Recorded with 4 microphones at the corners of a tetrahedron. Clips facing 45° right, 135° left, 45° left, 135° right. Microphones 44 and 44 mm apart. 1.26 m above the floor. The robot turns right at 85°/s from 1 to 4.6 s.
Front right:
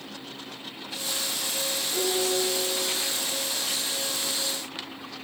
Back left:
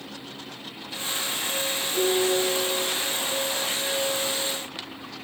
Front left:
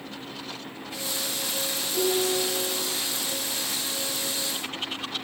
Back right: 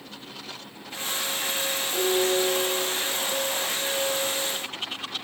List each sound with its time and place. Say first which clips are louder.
1.9 s dishes clattering: back left 4 dB, back right 2 dB; 130° right, 5.5 m; by 2.9 s 45° right, 5.5 m